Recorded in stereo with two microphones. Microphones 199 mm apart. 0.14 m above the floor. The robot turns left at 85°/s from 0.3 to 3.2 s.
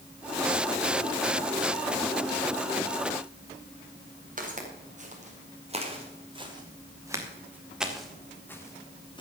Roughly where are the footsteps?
Right.